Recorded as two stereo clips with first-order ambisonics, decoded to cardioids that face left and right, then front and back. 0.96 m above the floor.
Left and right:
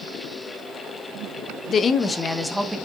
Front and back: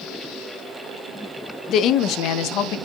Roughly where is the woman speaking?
Ahead left.